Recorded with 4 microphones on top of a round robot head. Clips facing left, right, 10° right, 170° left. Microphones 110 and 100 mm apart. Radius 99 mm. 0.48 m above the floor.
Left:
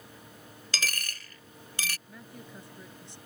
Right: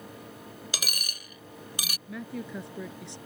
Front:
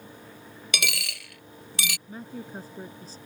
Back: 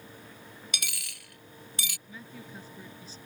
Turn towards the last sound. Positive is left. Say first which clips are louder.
# right 10 dB, front 7 dB
turn(degrees=-65)